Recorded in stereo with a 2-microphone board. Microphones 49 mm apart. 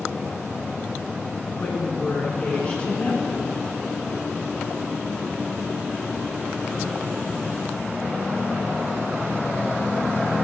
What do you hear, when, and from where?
1.6 s a woman speaking: 25° left (ahead or behind), 3 m